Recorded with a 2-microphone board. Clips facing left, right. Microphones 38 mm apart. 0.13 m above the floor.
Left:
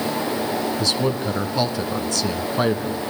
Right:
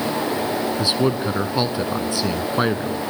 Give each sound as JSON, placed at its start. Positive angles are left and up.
{"t": 0.8, "sound": "a man speaking", "side_deg": -20, "distance_m": 1.3}